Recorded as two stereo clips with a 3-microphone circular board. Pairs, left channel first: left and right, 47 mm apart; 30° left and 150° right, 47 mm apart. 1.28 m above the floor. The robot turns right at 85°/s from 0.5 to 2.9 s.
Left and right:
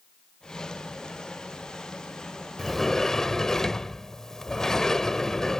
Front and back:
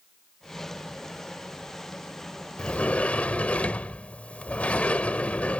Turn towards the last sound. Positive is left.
turn(degrees=25)